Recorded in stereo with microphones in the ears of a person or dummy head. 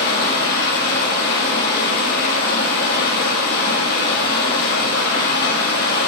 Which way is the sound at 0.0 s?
50° left (ahead or behind).